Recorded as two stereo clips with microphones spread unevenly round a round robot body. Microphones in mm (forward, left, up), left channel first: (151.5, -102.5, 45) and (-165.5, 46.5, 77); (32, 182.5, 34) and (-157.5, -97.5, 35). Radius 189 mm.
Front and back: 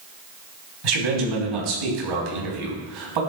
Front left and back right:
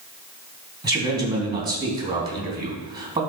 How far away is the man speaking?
About 3 m.